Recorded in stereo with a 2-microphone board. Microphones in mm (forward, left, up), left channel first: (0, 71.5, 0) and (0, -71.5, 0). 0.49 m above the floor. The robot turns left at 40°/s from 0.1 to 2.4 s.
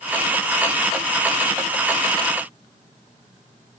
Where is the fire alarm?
I don't hear a fire alarm.